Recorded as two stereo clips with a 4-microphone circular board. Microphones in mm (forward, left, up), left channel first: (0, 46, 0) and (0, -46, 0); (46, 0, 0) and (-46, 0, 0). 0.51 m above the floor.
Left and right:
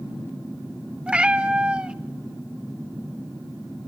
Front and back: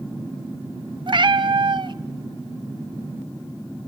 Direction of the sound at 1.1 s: 165° right.